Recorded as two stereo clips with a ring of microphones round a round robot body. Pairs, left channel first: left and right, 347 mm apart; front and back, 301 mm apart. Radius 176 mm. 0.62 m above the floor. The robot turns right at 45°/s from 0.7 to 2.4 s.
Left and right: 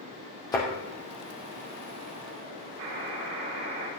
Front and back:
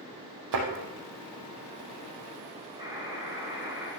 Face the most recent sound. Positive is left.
turn(degrees=-105)